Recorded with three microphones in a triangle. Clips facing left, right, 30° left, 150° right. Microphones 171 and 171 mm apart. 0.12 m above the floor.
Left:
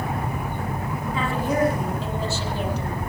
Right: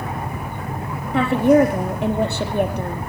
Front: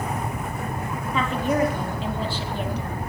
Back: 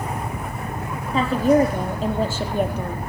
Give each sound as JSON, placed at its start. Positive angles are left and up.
{"t": 1.1, "sound": "a woman speaking", "azimuth_deg": -95, "distance_m": 5.0}